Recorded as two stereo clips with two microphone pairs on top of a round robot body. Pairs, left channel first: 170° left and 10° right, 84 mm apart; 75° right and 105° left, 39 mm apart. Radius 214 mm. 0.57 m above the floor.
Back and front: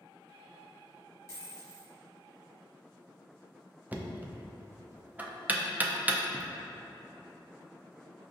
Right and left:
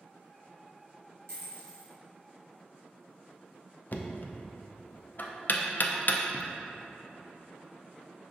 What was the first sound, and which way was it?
A dropped coin, 110° left.